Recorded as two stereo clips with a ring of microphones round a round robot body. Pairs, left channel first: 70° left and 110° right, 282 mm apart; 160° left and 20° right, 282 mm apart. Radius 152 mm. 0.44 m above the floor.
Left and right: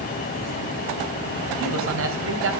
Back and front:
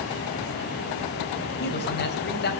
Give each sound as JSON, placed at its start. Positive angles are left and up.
{"t": 1.6, "sound": "a man speaking", "azimuth_deg": -150, "distance_m": 2.5}